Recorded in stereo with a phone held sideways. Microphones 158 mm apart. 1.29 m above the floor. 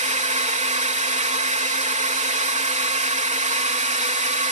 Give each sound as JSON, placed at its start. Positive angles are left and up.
{"t": 0.0, "sound": "a drone", "side_deg": -45}